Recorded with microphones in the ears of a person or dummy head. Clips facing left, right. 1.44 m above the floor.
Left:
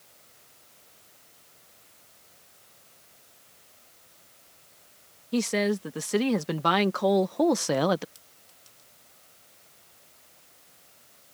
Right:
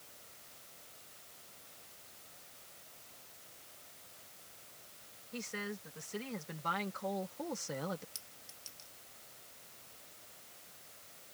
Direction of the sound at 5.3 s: 85° left.